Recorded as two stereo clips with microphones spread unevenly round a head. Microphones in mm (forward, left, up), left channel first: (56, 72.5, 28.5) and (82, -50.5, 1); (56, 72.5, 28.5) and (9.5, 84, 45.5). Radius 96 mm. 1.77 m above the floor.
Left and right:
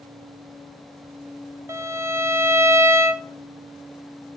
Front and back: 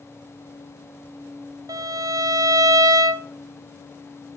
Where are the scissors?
No scissors in this recording.